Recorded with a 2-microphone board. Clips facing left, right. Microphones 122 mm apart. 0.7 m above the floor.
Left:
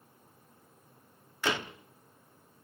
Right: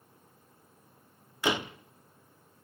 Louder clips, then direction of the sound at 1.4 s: Right 3 dB; 15° right (ahead or behind).